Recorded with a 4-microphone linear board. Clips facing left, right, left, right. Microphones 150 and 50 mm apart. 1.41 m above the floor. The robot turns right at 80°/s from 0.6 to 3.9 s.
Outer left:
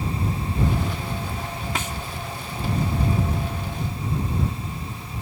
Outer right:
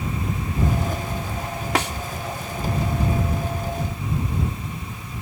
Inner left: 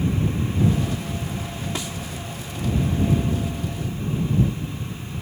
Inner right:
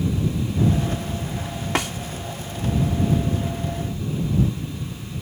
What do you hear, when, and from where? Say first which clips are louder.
1.8 s a snare drum: outer right 9 dB, inner right 10 dB; 70° right (ahead or behind); by 1.9 s 60° right (ahead or behind)